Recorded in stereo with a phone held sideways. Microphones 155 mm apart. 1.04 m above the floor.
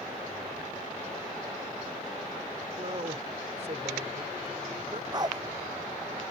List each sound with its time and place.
2.8 s a man speaking: 50° right (ahead or behind)
5.1 s a dog barking: 30° right (ahead or behind)